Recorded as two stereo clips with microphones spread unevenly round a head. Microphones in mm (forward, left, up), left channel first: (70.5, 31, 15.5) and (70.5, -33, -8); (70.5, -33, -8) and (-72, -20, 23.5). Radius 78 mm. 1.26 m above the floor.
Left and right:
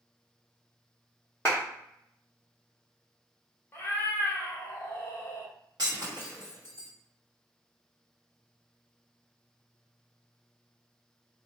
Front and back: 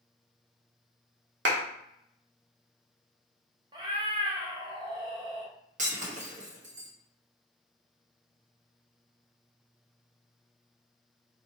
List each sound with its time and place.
1.4 s a clap: 170° left, 1.0 m
3.7 s a cat meowing: 130° left, 0.7 m
5.8 s breaking glass: 155° right, 1.2 m